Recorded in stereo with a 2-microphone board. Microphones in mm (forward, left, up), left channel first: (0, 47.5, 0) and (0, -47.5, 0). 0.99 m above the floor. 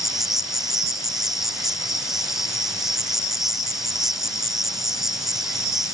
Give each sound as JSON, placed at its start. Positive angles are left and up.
{"t": 0.0, "sound": "an insect", "side_deg": -5}